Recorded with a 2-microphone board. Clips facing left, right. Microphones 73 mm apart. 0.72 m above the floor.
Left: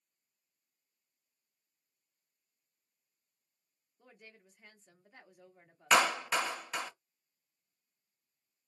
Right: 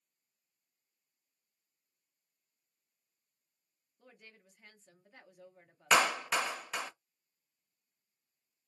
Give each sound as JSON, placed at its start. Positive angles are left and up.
{"t": 4.0, "sound": "a woman speaking", "side_deg": 10, "distance_m": 0.8}
{"t": 5.9, "sound": "a clap", "side_deg": 0, "distance_m": 0.5}